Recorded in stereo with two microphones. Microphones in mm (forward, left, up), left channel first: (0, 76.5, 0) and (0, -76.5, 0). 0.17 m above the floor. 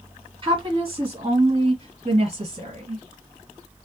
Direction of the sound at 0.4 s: 30° right (ahead or behind).